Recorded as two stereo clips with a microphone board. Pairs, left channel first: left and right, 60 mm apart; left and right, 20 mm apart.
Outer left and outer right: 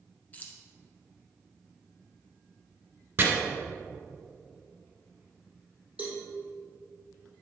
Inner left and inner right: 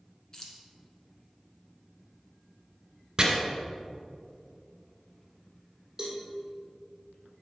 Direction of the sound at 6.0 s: 25° right (ahead or behind).